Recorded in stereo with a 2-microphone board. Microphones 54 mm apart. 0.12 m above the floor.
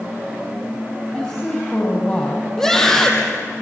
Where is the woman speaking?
20° left (ahead or behind), 4.5 m.